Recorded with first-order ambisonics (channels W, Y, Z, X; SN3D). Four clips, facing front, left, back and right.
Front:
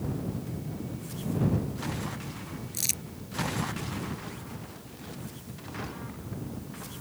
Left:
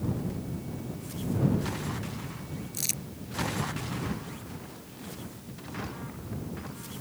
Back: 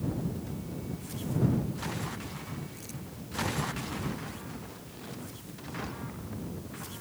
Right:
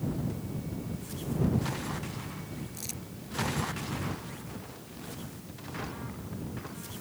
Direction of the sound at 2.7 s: 30° left.